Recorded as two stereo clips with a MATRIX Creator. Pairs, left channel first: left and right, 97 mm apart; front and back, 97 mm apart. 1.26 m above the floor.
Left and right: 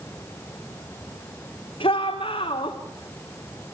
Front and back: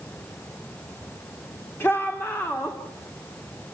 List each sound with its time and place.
1.8 s a shout: 70° left, 3 m